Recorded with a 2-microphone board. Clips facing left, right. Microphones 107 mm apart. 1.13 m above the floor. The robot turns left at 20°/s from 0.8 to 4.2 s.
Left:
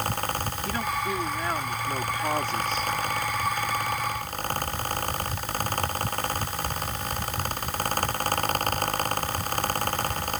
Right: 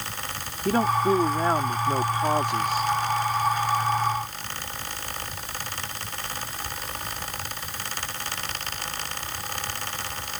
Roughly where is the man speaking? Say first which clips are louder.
Right 10 dB; behind right.